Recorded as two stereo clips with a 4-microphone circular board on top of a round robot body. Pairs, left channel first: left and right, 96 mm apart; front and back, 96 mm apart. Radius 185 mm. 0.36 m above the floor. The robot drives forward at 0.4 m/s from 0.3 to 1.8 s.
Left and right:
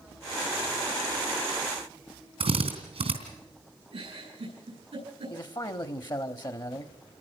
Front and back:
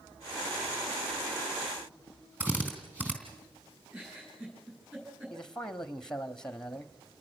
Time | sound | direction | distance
2.4 | a drill | 110° right | 3.5 m
3.9 | a giggle | 110° right | 10 m
5.3 | a man speaking | 80° left | 1.3 m